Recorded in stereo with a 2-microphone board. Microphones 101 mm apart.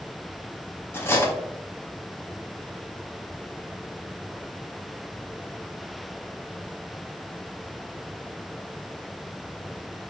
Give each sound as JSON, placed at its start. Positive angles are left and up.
{"t": 0.9, "sound": "cutlery clinking", "side_deg": 25, "distance_m": 0.6}